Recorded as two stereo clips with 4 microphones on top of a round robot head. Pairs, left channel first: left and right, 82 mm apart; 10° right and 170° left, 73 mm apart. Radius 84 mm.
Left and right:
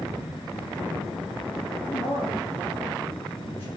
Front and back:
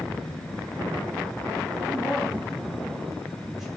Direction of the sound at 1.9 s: 90° left.